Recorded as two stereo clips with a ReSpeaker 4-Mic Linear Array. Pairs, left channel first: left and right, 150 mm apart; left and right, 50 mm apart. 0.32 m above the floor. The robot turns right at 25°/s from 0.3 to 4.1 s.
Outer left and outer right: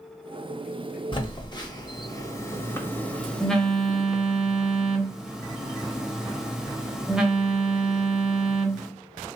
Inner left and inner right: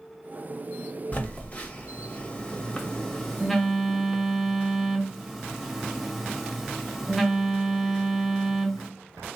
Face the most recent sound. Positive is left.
turn(degrees=-175)